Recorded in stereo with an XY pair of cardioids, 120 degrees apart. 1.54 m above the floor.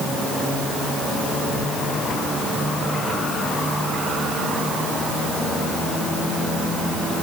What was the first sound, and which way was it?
Only background noise.